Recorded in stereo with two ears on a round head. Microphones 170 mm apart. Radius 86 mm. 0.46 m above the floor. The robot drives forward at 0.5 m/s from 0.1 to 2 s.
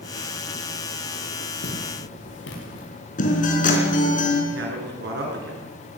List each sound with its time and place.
1.6 s footsteps: 55° left (ahead or behind), 7 m; by 2.9 s 70° left (ahead or behind), 6 m
3.2 s a guitar: 45° left (ahead or behind), 4.5 m
4.5 s a man speaking: 55° right (ahead or behind), 6 m